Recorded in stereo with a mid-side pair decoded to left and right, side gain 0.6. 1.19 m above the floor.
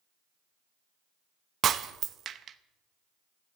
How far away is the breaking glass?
About 0.8 m.